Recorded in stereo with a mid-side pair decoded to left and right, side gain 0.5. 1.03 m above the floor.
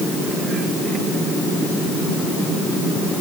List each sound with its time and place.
Only background noise.